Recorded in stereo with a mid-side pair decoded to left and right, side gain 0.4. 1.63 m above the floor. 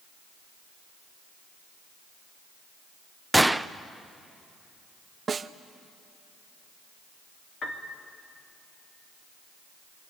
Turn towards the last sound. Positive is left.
turn(degrees=60)